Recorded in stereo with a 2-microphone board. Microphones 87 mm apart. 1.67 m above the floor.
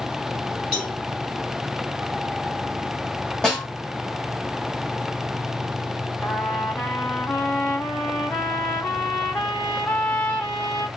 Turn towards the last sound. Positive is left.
turn(degrees=25)  # may be behind; listen again after turning